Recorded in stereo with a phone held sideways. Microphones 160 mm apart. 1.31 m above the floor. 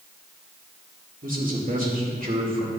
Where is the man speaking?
60° right (ahead or behind), 2 m.